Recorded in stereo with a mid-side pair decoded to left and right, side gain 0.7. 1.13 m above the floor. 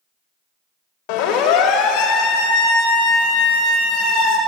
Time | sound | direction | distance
1.1 | a siren | 65° left | 6 m